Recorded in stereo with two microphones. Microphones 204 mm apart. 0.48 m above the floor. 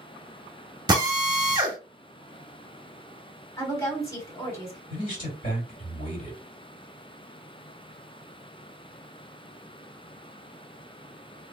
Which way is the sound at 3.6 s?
15° left (ahead or behind).